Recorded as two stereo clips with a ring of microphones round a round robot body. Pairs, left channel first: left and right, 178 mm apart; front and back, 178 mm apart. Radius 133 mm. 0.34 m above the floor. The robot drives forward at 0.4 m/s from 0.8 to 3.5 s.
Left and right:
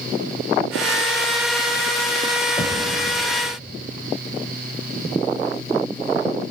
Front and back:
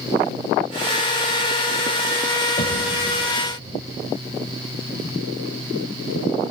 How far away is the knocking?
About 1.8 m.